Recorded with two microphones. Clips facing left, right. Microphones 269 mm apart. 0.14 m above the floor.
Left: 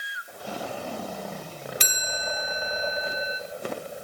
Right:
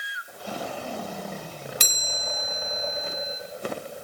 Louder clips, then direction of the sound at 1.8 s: Left 2 dB; 50° right (ahead or behind).